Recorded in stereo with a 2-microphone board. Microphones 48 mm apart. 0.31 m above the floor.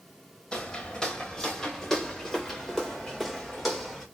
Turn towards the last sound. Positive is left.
turn(degrees=0)  # may be behind; listen again after turning